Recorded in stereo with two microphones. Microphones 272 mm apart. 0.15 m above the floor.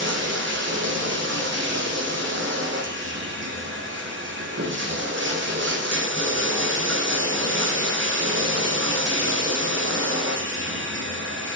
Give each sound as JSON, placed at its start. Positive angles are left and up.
{"t": 0.0, "sound": "running water", "side_deg": -45, "distance_m": 4.5}